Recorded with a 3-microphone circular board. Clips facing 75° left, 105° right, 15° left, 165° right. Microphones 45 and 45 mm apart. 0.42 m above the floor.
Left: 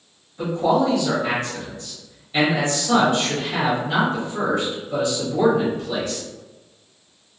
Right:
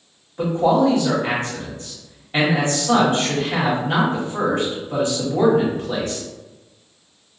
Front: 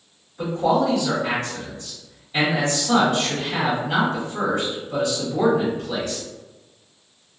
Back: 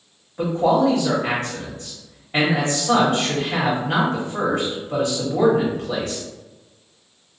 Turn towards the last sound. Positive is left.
turn(degrees=-145)